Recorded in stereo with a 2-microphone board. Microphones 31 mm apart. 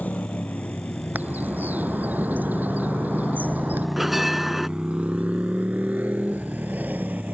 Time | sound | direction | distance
0.0 | a motorcycle | 70° left (ahead or behind) | ?
1.1 | a bird | 80° right | ?
4.0 | a bell | 10° right (ahead or behind) | ?